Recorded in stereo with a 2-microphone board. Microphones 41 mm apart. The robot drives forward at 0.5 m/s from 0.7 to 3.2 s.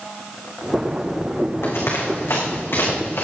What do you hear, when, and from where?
1.6 s running footsteps: 75° left (ahead or behind), 4.5 m